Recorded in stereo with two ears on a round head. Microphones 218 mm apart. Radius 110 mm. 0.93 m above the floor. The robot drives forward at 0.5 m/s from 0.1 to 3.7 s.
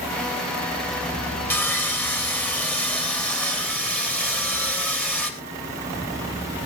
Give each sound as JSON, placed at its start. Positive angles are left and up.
{"t": 1.5, "sound": "sawing", "side_deg": 10, "distance_m": 2.5}